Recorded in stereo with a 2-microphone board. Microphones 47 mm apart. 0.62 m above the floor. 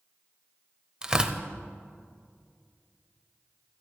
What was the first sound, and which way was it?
Tearing paper, 15° right (ahead or behind).